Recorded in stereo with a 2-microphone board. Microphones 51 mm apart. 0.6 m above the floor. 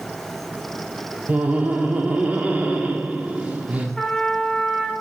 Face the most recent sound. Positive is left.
turn(degrees=5)  # may be behind; listen again after turning